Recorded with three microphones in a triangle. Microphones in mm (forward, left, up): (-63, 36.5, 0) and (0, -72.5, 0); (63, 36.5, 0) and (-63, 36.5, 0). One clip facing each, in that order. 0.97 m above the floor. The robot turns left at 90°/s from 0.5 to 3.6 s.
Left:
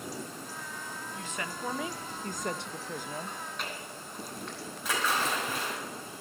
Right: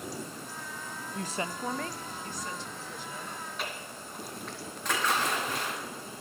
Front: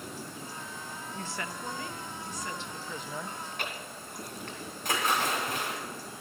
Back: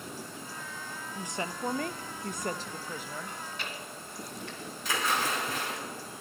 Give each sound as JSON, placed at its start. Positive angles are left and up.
{"t": 1.1, "sound": "a woman speaking", "azimuth_deg": -95, "distance_m": 0.5}
{"t": 3.3, "sound": "chewing", "azimuth_deg": 55, "distance_m": 2.0}
{"t": 4.8, "sound": "a splash", "azimuth_deg": 35, "distance_m": 5.0}